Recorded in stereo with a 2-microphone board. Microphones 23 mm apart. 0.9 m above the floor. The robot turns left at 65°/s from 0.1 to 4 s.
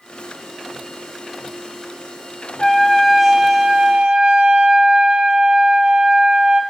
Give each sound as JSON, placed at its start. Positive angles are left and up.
{"t": 2.6, "sound": "a trumpet", "azimuth_deg": 30, "distance_m": 0.5}